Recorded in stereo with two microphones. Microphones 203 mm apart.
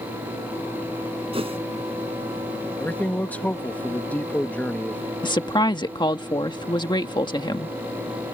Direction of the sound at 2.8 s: 10° left (ahead or behind).